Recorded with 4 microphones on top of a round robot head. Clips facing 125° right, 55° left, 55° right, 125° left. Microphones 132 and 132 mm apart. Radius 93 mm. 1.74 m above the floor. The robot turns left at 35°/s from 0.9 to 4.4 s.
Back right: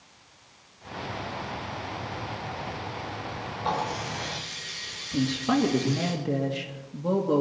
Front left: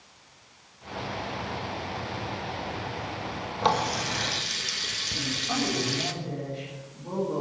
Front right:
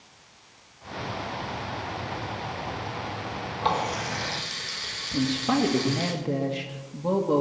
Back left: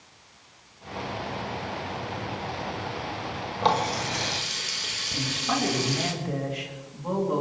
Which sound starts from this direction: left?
A running tap, at 3.6 s.